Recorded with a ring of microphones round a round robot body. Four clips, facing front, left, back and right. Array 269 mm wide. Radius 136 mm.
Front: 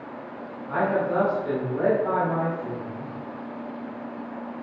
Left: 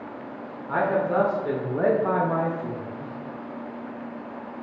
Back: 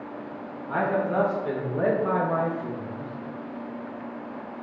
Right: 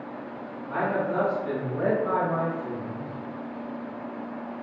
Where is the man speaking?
95° left, 1.8 m; by 3.1 s 145° left, 1.0 m.